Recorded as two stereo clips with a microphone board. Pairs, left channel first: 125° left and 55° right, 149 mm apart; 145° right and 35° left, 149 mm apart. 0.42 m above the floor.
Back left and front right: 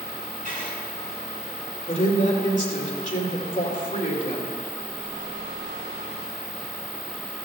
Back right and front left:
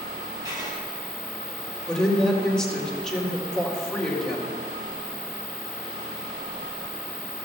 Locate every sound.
0.5 s writing: 30° right, 5 m
1.9 s a woman speaking: 130° left, 2 m